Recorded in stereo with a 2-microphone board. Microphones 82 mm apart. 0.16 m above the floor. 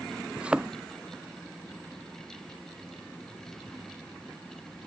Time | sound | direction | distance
0.4 | a thud | 15° right (ahead or behind) | ?